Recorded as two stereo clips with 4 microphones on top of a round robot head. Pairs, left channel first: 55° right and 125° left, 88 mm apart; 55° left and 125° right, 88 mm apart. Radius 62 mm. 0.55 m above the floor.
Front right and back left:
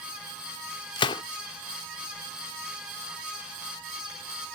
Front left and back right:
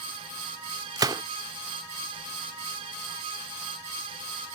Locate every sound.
1.0 s a gunshot: 80° right